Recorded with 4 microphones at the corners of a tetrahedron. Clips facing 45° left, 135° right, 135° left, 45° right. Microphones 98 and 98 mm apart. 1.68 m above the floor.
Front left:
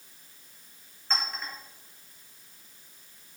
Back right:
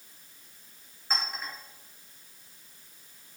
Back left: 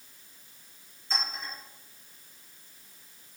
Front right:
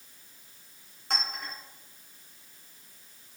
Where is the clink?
55° right, 1.2 m.